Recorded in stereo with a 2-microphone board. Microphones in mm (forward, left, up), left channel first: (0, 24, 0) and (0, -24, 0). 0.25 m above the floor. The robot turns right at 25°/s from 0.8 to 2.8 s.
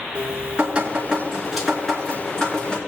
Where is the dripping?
25° right, 3 m; by 2.8 s 25° left, 3 m.